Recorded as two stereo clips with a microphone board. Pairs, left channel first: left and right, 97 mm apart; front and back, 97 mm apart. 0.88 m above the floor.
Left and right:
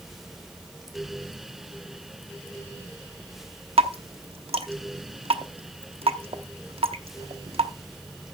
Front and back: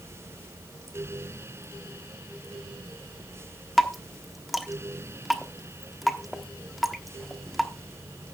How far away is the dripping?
About 1.0 m.